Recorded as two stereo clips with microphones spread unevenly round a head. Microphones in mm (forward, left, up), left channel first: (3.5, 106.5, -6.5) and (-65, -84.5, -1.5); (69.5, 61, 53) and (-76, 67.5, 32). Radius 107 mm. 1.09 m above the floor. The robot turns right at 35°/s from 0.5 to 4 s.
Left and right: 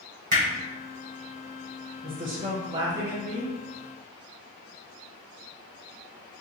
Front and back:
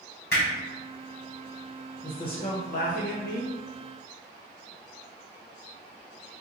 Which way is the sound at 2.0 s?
70° right.